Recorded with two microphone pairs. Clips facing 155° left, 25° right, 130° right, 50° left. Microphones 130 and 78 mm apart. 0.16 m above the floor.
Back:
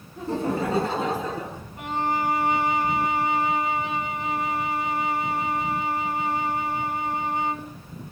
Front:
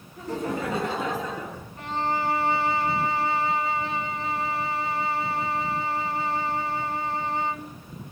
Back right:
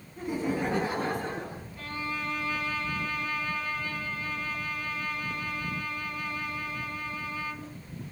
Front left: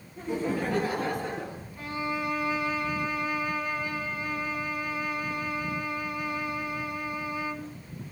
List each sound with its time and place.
0.2 s laughter: 155° left, 1.4 m; by 1.6 s 155° right, 2 m
1.8 s a violin: 110° left, 1.0 m